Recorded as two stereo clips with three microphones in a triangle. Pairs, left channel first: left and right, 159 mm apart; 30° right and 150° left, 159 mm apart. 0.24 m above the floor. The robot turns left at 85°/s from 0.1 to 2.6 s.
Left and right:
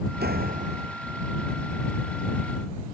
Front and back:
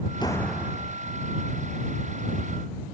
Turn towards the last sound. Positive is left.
turn(degrees=65)